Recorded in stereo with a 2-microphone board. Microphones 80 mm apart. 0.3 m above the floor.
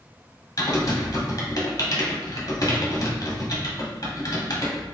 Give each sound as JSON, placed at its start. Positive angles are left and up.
{"t": 0.6, "sound": "typing on a keyboard", "side_deg": 55, "distance_m": 1.0}